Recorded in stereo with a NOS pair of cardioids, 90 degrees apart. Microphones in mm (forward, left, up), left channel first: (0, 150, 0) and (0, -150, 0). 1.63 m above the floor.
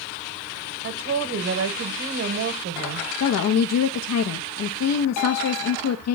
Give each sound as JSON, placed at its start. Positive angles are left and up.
{"t": 0.8, "sound": "a woman speaking", "azimuth_deg": -55, "distance_m": 1.9}
{"t": 3.2, "sound": "a woman speaking", "azimuth_deg": 60, "distance_m": 1.1}